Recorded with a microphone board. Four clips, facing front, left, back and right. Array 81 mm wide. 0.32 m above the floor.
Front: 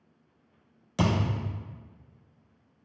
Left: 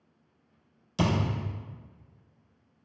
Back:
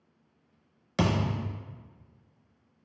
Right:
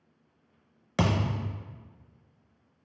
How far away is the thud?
About 0.7 m.